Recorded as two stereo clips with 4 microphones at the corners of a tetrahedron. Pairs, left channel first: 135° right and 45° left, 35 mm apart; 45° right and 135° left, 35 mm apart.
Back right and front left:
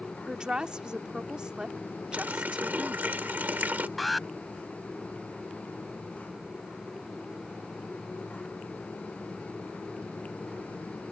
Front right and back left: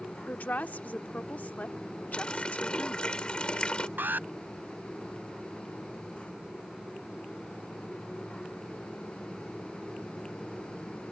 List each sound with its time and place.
0.3 s a woman speaking: 20° right
2.1 s a running tap: 15° left
4.0 s an alarm: 135° left